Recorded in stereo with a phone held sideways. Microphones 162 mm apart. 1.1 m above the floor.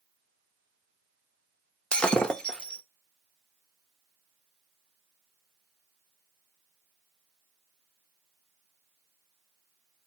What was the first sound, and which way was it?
Breaking glass, 5° left (ahead or behind).